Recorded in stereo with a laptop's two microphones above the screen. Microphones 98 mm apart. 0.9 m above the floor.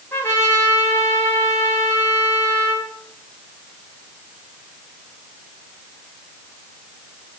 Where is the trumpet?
25° left (ahead or behind), 1.8 m.